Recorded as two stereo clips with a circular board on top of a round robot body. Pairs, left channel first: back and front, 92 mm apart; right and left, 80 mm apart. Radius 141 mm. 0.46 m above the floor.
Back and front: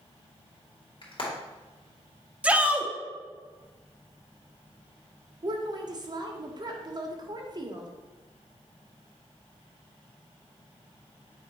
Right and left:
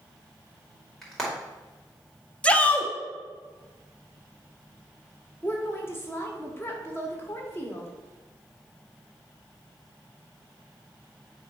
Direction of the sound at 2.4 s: 50° right.